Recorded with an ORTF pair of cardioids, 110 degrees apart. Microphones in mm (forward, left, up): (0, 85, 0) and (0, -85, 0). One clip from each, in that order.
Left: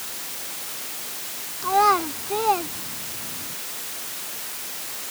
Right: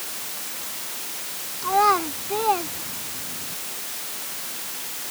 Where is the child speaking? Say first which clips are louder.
Even; 10° left.